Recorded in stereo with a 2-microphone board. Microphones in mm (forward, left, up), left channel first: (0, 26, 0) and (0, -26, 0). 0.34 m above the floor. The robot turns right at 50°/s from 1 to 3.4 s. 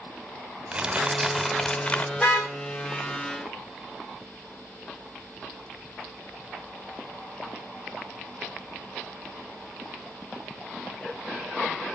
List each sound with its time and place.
0.7 s crumpling: 20° right, 1.9 m; by 2.1 s 30° left, 1.9 m
2.2 s a car horn: 20° left (ahead or behind), 9.5 m; by 2.5 s centre (ahead or behind), 9.5 m